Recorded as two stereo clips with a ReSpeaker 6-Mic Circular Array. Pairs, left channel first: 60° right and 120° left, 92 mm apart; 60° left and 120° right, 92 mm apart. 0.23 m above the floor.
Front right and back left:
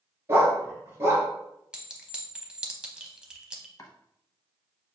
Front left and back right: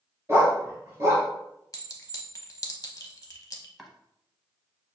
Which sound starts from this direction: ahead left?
A clink, at 1.7 s.